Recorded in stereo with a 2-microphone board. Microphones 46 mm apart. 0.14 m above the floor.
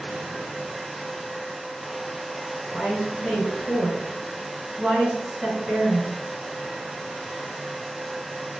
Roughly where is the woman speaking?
Centre.